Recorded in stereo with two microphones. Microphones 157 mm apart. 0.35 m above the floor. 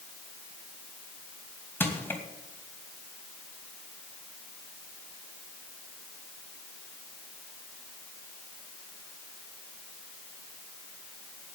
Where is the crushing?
10° left (ahead or behind), 2.5 m.